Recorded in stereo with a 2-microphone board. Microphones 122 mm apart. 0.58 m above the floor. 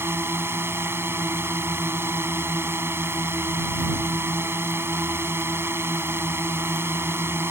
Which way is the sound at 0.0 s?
20° right (ahead or behind).